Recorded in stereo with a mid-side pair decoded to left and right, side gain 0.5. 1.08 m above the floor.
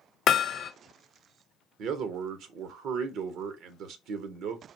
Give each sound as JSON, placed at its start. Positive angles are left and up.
{"t": 0.3, "sound": "hammering", "azimuth_deg": 60, "distance_m": 0.7}
{"t": 1.8, "sound": "a man speaking", "azimuth_deg": -70, "distance_m": 0.7}